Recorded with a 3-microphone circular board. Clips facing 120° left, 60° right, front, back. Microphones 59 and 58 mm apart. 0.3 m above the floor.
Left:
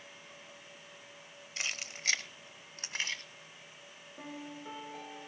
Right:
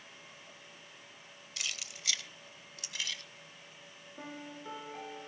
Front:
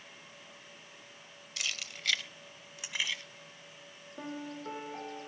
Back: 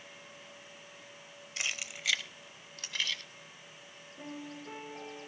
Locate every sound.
1.6 s keys jangling: 140° left, 0.6 m; by 3.2 s 70° left, 1.4 m
4.2 s a piano: 25° left, 4.5 m